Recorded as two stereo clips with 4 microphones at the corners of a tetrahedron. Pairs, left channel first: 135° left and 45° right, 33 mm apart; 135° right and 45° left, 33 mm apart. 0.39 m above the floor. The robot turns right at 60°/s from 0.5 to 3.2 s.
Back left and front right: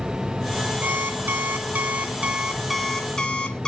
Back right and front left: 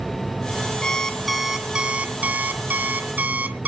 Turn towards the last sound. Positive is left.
turn(degrees=70)